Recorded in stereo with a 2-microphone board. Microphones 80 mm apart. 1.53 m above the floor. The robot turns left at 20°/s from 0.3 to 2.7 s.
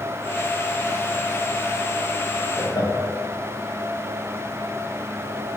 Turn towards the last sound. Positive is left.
turn(degrees=50)  # may be behind; listen again after turning